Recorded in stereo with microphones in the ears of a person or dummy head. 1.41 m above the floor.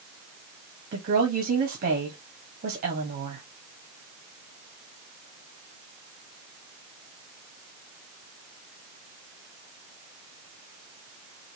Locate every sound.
0.9 s a woman speaking: 45° right (ahead or behind), 1.4 m